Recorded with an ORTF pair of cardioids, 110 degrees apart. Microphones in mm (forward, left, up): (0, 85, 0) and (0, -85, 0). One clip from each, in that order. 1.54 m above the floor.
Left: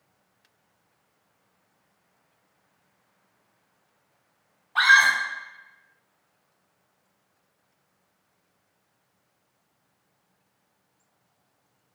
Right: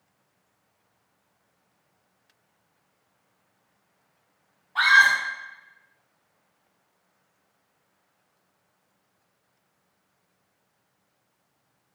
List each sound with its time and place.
4.8 s a scream: 15° left, 1.0 m